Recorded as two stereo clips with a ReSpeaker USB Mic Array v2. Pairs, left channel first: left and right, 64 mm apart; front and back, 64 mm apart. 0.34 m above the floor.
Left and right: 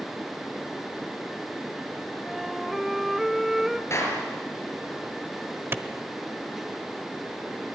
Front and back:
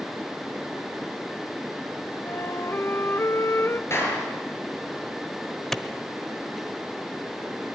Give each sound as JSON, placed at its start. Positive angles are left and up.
{"t": 2.2, "sound": "a flute", "azimuth_deg": -5, "distance_m": 0.6}
{"t": 3.9, "sound": "a clap", "azimuth_deg": 45, "distance_m": 6.5}
{"t": 5.7, "sound": "a clap", "azimuth_deg": -80, "distance_m": 0.9}